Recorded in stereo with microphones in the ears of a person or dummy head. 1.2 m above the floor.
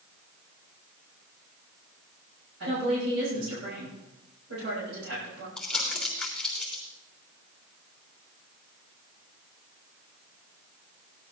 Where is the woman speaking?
80° right, 6 m.